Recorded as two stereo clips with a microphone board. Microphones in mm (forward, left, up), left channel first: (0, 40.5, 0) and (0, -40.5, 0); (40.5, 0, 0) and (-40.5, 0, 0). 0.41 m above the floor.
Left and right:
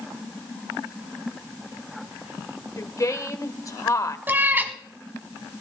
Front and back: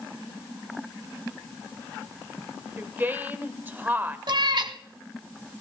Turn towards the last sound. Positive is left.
turn(degrees=-155)